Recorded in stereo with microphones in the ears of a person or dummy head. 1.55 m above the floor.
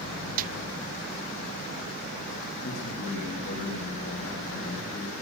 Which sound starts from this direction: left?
A man speaking, at 2.6 s.